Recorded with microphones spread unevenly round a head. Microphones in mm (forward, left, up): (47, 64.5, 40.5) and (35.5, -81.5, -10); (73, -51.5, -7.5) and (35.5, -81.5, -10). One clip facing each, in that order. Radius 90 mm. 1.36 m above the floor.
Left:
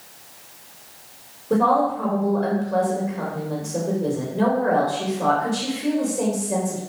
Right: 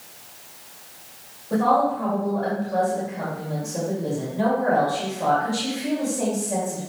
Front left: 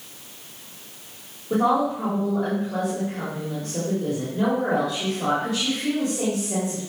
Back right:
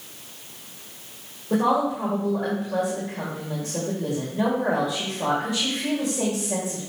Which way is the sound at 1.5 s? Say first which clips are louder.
Left 1 dB, front left 1 dB; 130° left.